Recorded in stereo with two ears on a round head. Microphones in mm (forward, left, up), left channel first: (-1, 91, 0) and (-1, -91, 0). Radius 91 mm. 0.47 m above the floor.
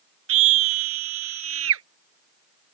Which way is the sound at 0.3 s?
70° right (ahead or behind).